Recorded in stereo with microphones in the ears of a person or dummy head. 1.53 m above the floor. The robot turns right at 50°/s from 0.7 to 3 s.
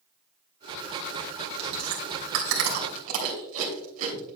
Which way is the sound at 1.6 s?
60° right (ahead or behind).